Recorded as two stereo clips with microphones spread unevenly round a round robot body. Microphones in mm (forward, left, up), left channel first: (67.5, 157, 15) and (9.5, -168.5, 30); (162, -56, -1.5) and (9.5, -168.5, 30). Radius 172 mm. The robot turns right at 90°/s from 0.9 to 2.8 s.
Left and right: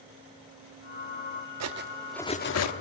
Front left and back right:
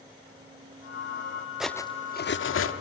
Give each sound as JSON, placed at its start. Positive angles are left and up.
{"t": 1.6, "sound": "cutlery clinking", "azimuth_deg": -55, "distance_m": 1.0}